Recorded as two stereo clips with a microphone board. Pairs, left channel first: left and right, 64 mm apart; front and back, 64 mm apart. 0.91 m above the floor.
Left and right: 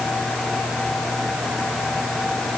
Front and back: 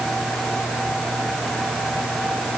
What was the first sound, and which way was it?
Only background noise.